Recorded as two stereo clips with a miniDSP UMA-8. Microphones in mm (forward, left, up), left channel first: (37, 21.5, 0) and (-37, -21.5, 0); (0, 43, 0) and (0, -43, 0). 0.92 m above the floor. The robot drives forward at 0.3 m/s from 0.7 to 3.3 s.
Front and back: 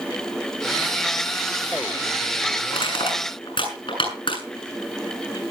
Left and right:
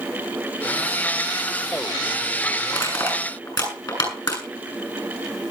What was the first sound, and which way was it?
Crushing, 45° left.